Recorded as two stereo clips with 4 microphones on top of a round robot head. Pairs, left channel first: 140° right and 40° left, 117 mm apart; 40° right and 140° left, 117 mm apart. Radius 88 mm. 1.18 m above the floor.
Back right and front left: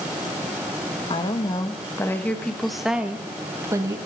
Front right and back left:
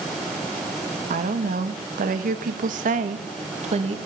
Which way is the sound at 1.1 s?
165° left.